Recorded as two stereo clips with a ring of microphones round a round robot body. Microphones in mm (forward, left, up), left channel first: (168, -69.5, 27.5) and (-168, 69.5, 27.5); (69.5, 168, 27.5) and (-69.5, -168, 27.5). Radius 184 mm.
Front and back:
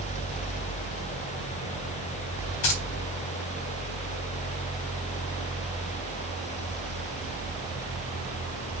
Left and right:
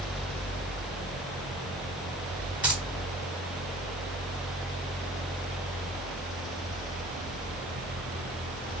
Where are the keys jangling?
25° right, 3.5 m.